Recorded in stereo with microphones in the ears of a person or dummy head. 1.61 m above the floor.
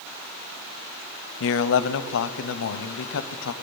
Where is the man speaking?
75° left (ahead or behind), 0.5 m.